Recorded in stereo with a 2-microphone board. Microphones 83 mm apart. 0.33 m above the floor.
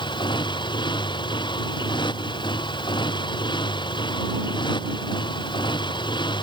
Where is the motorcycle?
70° left (ahead or behind).